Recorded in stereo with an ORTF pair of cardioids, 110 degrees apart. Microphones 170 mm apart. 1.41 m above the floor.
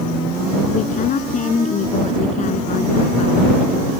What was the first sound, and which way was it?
A woman speaking, 45° left.